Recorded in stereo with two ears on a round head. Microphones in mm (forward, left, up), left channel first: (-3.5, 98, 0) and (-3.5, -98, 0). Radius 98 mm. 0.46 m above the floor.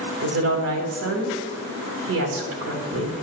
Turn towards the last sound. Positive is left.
turn(degrees=-65)  # may be behind; listen again after turning